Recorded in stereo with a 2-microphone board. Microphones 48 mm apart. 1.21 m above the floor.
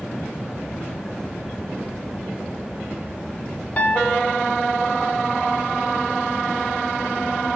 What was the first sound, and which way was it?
A piano, 30° left (ahead or behind).